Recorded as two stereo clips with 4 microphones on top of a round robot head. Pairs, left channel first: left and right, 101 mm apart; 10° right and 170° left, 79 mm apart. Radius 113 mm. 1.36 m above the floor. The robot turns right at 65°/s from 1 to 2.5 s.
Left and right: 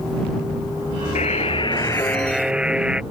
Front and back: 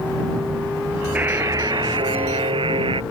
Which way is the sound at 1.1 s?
100° left.